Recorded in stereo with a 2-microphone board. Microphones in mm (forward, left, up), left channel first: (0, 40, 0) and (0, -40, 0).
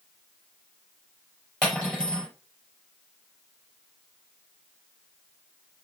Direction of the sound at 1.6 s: 10° left (ahead or behind).